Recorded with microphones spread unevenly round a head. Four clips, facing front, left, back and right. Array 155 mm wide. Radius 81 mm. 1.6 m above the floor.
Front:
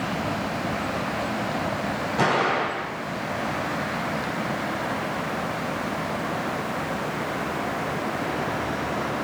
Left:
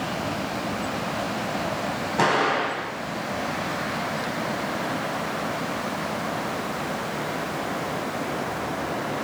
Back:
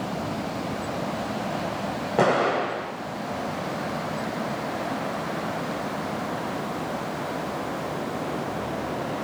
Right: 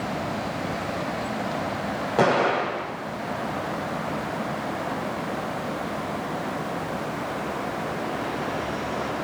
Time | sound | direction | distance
2.2 | an explosion | 140° right | 9 m